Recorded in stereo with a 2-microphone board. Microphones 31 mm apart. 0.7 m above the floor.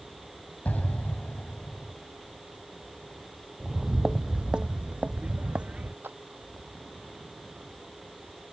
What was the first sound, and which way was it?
An explosion, 50° left (ahead or behind).